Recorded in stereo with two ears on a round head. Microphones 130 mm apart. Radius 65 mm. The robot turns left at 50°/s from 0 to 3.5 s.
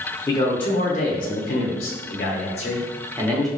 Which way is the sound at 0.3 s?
160° left.